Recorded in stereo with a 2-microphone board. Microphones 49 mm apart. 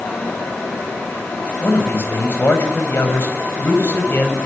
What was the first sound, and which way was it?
A man speaking, 50° left (ahead or behind).